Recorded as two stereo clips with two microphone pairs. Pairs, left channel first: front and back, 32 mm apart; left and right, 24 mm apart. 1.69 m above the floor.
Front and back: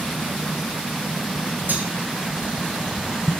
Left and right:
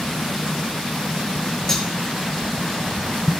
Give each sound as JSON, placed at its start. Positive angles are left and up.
{"t": 1.7, "sound": "cutlery clinking", "azimuth_deg": 165, "distance_m": 4.5}